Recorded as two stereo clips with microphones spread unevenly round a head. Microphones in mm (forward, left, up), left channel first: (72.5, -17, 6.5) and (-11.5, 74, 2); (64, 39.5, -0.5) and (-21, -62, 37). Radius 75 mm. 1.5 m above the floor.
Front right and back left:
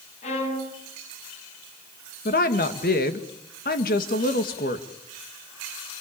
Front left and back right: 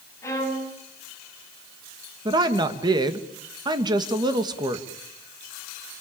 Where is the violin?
20° right, 7.5 m.